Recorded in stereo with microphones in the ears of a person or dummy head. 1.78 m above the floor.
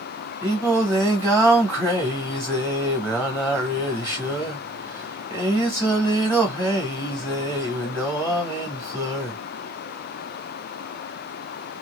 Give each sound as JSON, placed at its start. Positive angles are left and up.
{"t": 0.4, "sound": "singing", "side_deg": -10, "distance_m": 1.3}